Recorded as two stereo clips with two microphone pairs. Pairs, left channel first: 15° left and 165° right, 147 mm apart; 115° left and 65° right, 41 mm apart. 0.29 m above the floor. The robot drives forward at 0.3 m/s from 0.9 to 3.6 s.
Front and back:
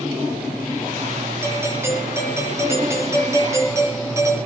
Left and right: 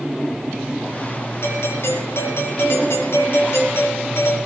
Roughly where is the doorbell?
Behind left.